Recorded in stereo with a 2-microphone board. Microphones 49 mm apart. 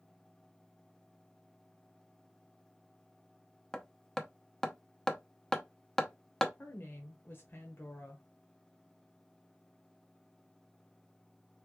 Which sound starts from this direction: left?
A woman speaking, at 6.6 s.